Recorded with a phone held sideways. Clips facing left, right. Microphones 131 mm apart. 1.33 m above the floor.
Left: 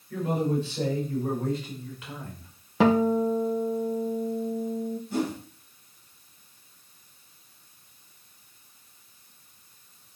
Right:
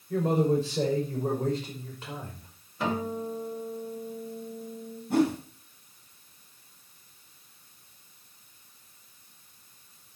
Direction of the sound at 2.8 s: 85° left.